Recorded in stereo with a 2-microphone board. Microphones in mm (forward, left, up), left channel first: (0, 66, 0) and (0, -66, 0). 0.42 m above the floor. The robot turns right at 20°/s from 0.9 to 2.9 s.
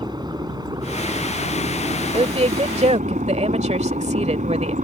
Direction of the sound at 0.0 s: 145° right.